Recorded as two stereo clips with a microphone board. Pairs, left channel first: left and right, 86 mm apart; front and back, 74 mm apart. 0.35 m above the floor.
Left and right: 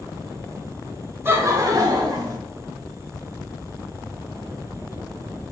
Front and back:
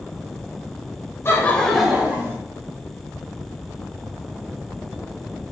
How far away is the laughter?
About 1.1 m.